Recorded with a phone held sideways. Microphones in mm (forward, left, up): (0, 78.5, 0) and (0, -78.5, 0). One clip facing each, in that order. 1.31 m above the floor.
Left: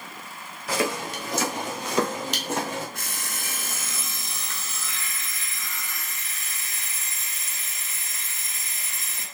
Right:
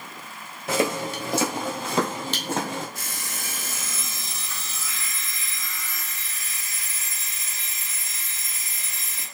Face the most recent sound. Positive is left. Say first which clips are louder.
# even
turn(degrees=60)  # may be behind; listen again after turning